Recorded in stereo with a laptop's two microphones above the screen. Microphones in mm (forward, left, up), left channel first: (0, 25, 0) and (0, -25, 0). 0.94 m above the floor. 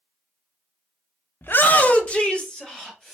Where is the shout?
45° left (ahead or behind), 0.5 m; by 3.1 s 10° left (ahead or behind), 1.7 m.